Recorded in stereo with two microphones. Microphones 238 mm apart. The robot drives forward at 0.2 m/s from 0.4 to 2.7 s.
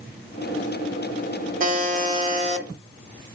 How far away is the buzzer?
About 1.2 m.